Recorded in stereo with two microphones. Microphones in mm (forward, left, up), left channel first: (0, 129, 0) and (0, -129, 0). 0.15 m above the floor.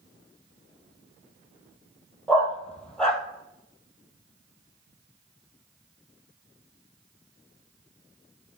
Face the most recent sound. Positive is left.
turn(degrees=5)  # may be behind; listen again after turning